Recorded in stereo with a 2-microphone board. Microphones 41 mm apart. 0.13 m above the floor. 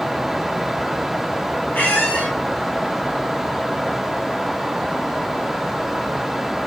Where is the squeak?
35° left (ahead or behind), 4 m.